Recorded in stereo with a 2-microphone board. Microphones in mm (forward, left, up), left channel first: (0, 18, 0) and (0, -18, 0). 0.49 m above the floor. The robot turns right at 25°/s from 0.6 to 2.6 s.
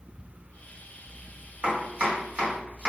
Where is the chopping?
45° right (ahead or behind), 1.5 m.